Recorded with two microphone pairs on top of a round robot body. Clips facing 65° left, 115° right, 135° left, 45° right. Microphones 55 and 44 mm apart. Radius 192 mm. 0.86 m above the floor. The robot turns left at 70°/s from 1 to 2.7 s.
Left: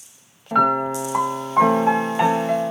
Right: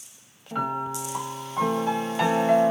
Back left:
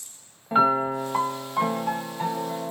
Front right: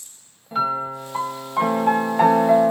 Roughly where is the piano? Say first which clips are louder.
Left 10 dB, back left 3 dB; left.